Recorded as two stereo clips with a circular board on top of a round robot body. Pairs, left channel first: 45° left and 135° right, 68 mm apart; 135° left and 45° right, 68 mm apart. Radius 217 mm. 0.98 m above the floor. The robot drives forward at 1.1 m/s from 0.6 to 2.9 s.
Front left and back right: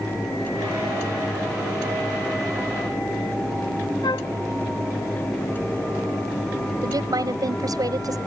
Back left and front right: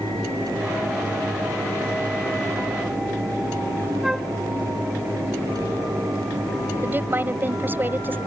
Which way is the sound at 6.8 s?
105° right.